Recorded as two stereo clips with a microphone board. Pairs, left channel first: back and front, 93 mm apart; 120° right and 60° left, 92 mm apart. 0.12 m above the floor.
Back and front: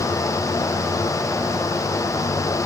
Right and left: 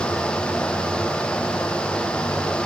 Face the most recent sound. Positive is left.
No sound to turn to.